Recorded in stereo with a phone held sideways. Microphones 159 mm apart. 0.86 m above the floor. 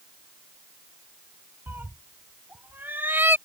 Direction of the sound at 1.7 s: 15° right (ahead or behind).